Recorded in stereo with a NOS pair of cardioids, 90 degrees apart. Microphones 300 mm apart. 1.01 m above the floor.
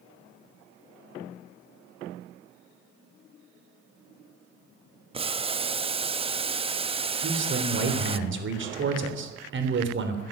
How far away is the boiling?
About 0.7 m.